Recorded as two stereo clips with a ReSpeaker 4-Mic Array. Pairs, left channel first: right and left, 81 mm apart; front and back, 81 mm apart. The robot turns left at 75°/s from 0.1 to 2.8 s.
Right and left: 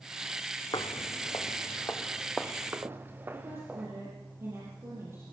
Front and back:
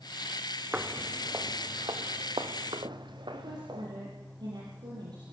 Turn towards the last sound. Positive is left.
turn(degrees=150)